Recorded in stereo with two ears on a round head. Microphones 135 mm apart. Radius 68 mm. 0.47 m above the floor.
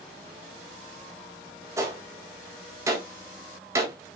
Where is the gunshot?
20° right (ahead or behind), 2.5 m.